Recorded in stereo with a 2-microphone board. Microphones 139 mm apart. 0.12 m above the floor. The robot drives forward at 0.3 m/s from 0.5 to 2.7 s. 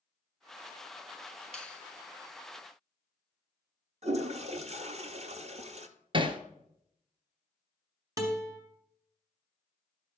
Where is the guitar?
25° right (ahead or behind), 1.5 m.